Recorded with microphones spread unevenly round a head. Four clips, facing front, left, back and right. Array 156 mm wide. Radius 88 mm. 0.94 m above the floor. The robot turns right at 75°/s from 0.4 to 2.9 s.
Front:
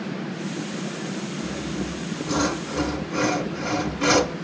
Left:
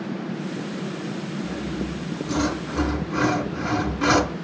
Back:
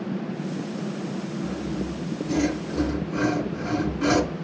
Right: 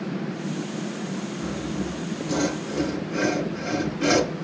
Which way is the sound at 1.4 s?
60° right.